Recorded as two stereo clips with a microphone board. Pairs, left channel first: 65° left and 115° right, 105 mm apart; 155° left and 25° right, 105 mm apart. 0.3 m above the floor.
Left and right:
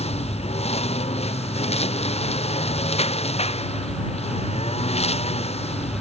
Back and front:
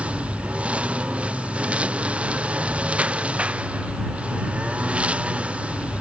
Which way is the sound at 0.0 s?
55° left.